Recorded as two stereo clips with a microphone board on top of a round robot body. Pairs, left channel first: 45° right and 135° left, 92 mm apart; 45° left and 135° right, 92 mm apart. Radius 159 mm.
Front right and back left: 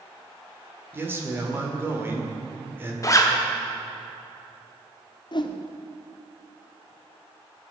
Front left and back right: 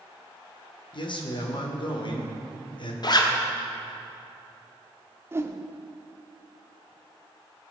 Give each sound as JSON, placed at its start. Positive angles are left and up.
{"t": 0.9, "sound": "a man speaking", "azimuth_deg": 70, "distance_m": 1.8}
{"t": 3.0, "sound": "a zipper", "azimuth_deg": 10, "distance_m": 1.4}
{"t": 5.3, "sound": "a whoosh", "azimuth_deg": -75, "distance_m": 1.0}